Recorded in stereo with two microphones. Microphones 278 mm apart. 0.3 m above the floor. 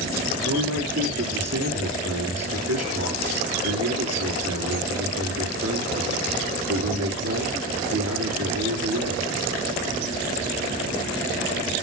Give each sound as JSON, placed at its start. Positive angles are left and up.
{"t": 0.5, "sound": "a man speaking", "side_deg": -65, "distance_m": 5.5}